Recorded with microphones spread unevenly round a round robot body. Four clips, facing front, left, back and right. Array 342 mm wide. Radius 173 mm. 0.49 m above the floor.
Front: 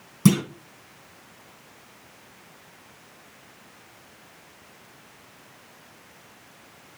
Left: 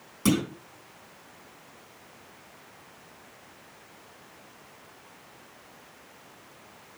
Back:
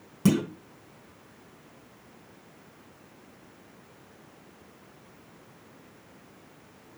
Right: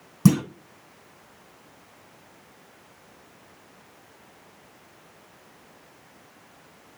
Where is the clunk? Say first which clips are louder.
Right 5 dB, front 4 dB; 80° right, 1.2 m.